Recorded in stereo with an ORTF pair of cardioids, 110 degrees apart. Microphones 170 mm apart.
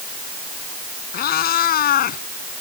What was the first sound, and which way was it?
A cat meowing, 65° left.